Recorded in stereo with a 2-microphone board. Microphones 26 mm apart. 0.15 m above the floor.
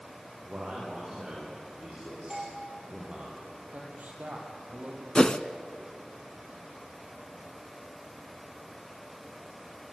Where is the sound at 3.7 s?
70° right (ahead or behind), 6 m.